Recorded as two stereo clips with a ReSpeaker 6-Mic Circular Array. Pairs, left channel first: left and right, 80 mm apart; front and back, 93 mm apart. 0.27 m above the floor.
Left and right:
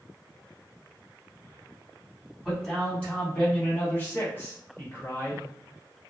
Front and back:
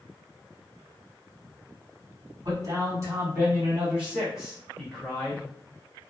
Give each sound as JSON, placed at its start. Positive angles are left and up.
{"t": 2.4, "sound": "a man speaking", "azimuth_deg": 165, "distance_m": 1.8}